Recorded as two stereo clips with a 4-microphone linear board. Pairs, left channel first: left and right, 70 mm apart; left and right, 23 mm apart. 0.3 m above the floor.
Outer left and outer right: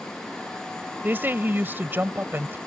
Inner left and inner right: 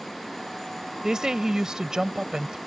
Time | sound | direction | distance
1.0 | a woman speaking | 30° right (ahead or behind) | ?